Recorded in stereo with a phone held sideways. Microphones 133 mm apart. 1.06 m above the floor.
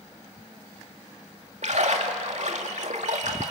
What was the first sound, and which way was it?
A splash, 65° right (ahead or behind).